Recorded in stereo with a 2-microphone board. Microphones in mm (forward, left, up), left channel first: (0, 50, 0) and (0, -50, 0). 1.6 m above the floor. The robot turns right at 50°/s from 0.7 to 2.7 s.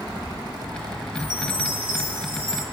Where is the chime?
130° right, 2 m; by 2.6 s 55° right, 2 m.